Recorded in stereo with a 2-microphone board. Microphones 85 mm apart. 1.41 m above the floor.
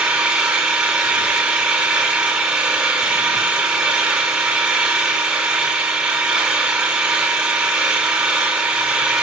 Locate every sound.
0.0 s an engine running: 10° right (ahead or behind), 5.5 m